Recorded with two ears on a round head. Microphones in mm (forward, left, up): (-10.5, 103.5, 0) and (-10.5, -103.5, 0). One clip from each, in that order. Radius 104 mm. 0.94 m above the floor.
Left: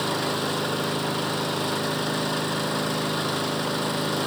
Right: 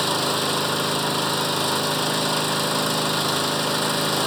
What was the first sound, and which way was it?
An engine running, 25° right (ahead or behind).